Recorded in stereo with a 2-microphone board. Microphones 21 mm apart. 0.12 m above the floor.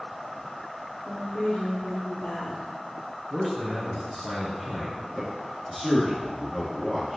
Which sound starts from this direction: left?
A woman speaking, at 1.1 s.